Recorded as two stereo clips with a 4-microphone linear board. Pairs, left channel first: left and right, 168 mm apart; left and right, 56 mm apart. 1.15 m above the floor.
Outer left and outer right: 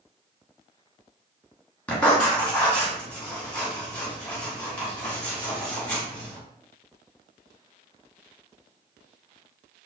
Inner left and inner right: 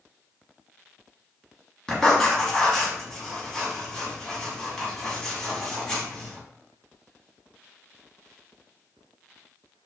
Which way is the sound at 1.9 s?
10° left (ahead or behind).